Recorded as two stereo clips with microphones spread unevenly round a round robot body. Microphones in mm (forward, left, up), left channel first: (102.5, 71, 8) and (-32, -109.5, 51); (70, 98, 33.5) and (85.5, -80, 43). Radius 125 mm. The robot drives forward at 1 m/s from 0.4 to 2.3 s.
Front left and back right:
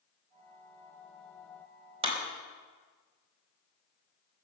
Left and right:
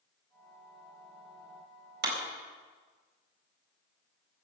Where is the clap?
60° right, 4.5 m.